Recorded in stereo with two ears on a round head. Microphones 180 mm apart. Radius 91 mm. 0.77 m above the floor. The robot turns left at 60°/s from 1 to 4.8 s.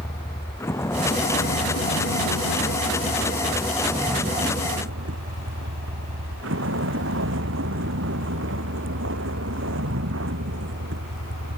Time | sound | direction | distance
0.0 | a vehicle | 165° left | ?